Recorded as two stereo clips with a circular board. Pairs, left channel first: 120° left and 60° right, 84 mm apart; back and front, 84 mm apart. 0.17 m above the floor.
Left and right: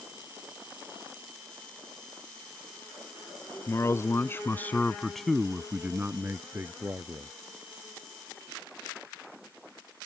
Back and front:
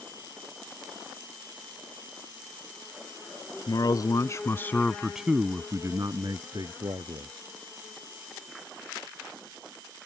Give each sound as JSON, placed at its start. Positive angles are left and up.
{"t": 3.7, "sound": "a man speaking", "azimuth_deg": 165}